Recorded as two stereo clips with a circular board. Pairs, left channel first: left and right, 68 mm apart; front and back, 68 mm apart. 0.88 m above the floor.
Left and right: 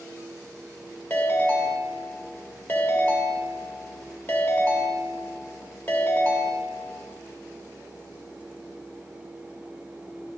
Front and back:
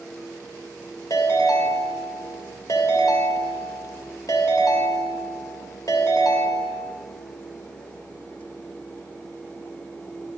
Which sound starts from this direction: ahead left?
A ringtone, at 1.1 s.